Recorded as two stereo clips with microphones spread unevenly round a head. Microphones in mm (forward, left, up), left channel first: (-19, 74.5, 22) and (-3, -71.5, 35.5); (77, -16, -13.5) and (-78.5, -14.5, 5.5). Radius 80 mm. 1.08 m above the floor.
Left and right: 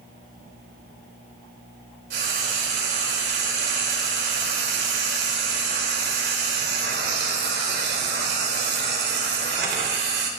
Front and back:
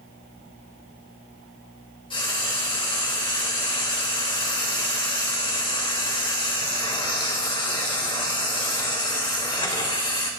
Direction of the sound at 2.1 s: 60° right.